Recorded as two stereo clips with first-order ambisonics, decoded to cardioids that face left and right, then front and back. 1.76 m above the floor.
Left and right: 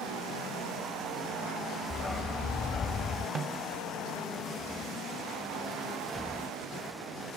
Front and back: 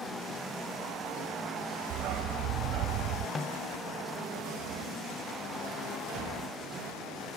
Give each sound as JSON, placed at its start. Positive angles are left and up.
{"t": 1.9, "sound": "a dog barking", "azimuth_deg": 165}
{"t": 3.4, "sound": "a snare drum", "azimuth_deg": -60}